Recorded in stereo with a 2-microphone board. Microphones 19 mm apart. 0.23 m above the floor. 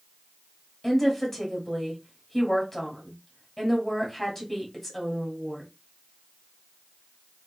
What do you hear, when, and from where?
0.8 s a woman speaking: 15° left (ahead or behind), 1.2 m